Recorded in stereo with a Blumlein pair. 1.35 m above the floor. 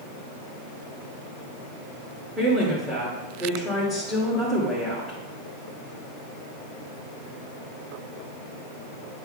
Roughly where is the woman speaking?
Ahead.